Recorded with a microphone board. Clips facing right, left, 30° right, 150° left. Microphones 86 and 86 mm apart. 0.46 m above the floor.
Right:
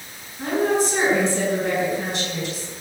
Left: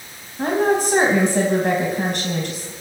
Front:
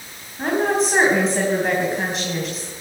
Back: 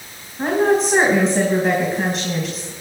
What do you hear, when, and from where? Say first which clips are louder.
0.4 s a woman speaking: left 2 dB, back 3 dB; 60° left, 3.5 m